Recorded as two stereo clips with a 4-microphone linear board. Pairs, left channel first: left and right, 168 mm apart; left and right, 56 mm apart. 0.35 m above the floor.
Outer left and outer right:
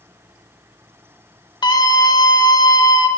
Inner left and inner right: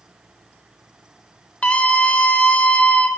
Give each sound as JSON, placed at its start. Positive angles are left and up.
{"t": 1.6, "sound": "a scream", "side_deg": 25, "distance_m": 1.1}